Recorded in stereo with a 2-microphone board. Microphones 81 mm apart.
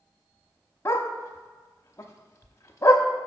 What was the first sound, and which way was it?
A dog barking, 40° left (ahead or behind).